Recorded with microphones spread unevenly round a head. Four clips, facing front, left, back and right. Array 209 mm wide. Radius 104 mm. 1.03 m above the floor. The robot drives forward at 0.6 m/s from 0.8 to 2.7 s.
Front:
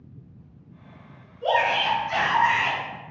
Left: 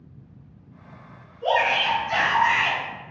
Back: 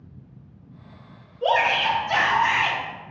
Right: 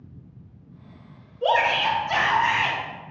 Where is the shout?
145° right, 1.5 m; by 2.8 s 155° right, 2 m.